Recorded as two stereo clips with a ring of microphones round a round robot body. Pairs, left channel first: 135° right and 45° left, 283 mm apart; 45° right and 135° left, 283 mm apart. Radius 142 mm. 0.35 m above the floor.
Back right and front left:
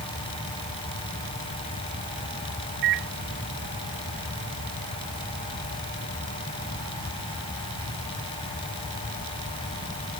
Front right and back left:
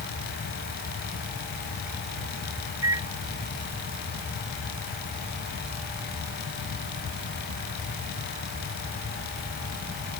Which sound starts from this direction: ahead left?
A microwave, at 2.8 s.